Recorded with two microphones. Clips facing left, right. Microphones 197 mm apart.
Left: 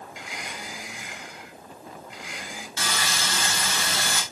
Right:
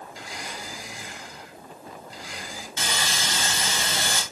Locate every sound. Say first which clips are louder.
0.1 s a blender: right 1 dB; 35° right (ahead or behind), 3.5 m
2.8 s sawing: even; 20° right (ahead or behind), 3 m